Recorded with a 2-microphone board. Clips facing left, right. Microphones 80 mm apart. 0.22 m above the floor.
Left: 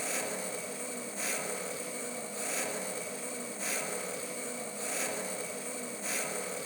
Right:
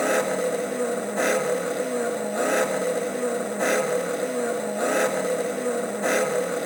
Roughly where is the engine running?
Right.